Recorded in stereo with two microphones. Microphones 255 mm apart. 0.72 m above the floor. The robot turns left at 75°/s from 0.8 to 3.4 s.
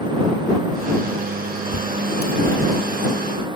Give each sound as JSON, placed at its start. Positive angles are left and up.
{"t": 1.7, "sound": "a bird", "side_deg": 70}